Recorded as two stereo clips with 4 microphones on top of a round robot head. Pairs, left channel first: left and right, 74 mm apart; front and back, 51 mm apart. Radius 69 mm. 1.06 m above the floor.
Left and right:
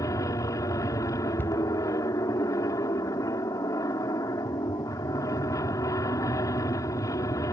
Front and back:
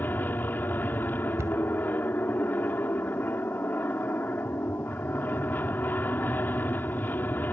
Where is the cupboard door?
160° left.